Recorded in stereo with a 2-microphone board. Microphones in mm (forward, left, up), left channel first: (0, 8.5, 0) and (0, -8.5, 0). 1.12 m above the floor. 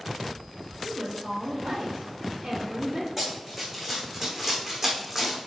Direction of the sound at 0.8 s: 55° right (ahead or behind).